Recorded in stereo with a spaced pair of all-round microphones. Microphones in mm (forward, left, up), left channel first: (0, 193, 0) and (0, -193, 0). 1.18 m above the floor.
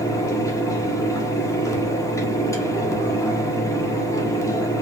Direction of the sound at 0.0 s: 10° left (ahead or behind).